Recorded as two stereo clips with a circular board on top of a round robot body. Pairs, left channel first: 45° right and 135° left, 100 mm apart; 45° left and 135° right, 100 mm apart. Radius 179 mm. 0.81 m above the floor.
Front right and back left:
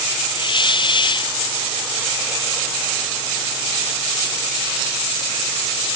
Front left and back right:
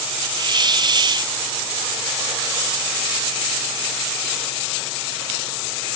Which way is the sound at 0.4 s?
90° right.